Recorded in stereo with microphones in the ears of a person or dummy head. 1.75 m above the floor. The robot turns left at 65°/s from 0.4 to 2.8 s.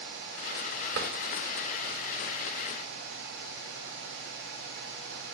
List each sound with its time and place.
0.9 s a drawer: 65° right (ahead or behind), 3.5 m; by 1.1 s 55° right (ahead or behind), 3.5 m